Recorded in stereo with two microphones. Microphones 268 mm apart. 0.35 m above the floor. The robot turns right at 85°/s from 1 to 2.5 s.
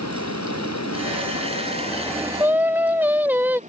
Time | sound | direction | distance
0.0 | running water | 80° left | ?
2.4 | singing | 10° right (ahead or behind) | ?